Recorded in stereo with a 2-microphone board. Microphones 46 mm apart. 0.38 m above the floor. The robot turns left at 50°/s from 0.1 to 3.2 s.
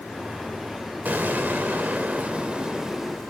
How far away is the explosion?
About 0.8 m.